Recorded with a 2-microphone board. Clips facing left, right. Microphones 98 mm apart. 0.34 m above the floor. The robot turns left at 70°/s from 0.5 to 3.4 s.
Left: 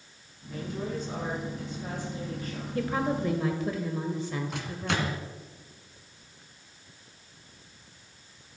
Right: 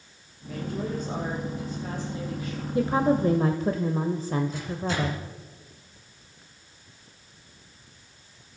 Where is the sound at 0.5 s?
95° right, 9 m; by 2.6 s 115° left, 9 m.